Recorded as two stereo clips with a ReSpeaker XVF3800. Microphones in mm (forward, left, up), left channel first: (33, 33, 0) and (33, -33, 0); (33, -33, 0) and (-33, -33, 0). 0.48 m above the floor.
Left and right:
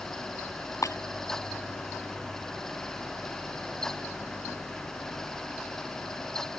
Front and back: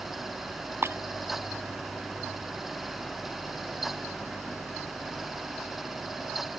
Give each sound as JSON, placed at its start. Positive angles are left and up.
{"t": 0.8, "sound": "breaking glass", "azimuth_deg": 130}